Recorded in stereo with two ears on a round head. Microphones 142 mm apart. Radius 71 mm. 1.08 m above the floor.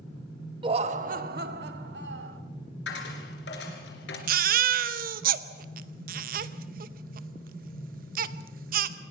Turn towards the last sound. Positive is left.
turn(degrees=-60)  # may be behind; listen again after turning